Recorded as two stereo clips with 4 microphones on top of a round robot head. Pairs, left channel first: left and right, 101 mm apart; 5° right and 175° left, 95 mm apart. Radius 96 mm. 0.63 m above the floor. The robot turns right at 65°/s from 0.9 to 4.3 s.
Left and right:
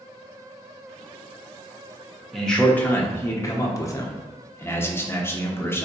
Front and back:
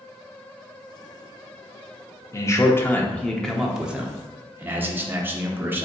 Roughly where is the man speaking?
Ahead.